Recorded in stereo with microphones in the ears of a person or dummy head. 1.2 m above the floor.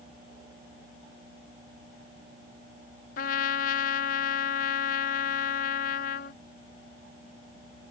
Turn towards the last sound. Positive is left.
turn(degrees=50)  # may be behind; listen again after turning